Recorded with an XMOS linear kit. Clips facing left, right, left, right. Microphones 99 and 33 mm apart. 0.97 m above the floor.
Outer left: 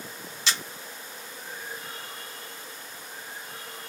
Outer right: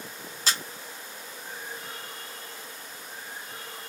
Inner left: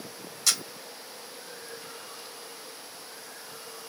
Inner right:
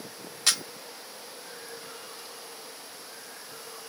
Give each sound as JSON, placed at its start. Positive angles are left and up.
{"t": 0.5, "sound": "a camera shutter", "side_deg": -40, "distance_m": 0.9}